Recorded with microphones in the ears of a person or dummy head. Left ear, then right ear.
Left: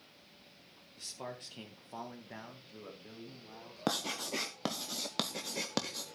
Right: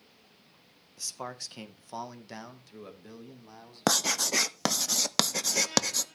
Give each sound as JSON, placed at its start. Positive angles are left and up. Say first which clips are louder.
{"t": 1.0, "sound": "a man speaking", "louder": "right 6 dB", "side_deg": -40, "distance_m": 1.4}
{"t": 3.9, "sound": "writing", "louder": "right 9 dB", "side_deg": -50, "distance_m": 0.6}